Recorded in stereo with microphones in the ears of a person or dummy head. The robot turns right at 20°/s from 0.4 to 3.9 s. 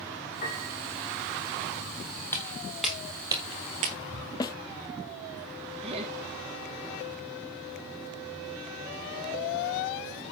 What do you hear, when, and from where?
0.4 s a piano: 45° left (ahead or behind), 5 m; by 0.7 s 40° left (ahead or behind), 5 m
2.3 s footsteps: 15° left (ahead or behind), 3 m; by 4.3 s 35° right (ahead or behind), 1.6 m
4.4 s a snare drum: 20° left (ahead or behind), 1.2 m
5.8 s laughter: 30° right (ahead or behind), 1.6 m